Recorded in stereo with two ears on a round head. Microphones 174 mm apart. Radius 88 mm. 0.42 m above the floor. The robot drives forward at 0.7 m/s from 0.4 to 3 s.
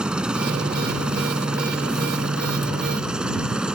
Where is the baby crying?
No baby crying in this recording.